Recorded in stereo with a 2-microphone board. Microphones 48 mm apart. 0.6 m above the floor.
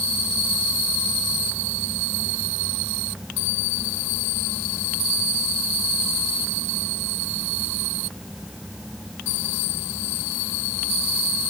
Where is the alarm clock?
I don't hear an alarm clock.